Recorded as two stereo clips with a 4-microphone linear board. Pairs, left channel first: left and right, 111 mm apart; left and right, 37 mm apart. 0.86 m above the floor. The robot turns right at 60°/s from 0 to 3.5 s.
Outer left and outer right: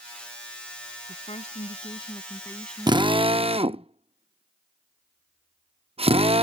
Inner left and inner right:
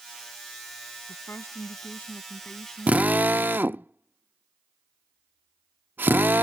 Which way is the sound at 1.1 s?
75° left.